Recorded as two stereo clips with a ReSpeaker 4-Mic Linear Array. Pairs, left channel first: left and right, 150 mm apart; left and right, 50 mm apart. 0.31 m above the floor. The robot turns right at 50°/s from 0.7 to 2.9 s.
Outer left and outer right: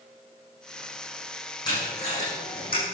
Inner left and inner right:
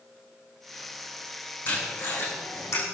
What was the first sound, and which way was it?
Tape being pulled, 25° left (ahead or behind).